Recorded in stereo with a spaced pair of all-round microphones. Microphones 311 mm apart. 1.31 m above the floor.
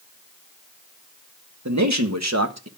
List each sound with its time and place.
1.6 s a man speaking: 65° right (ahead or behind), 1.7 m; by 2.7 s 55° right (ahead or behind), 1.3 m